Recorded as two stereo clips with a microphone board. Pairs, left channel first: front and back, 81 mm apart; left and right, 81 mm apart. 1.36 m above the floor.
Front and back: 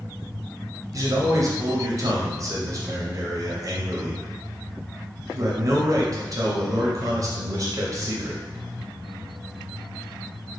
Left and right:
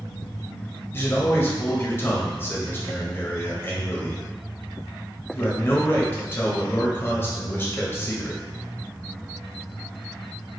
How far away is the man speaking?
About 0.7 m.